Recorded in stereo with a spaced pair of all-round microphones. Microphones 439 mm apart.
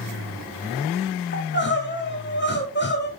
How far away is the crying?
About 1.9 m.